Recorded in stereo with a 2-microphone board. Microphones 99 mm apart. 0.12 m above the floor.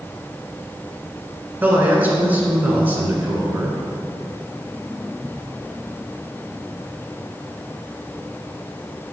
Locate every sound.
1.6 s a man speaking: 20° right (ahead or behind), 1.3 m